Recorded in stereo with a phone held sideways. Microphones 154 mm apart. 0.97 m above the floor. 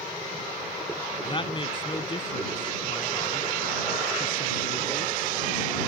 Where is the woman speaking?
35° left (ahead or behind).